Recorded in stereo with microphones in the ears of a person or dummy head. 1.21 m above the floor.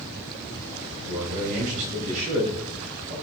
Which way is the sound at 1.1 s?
50° right (ahead or behind).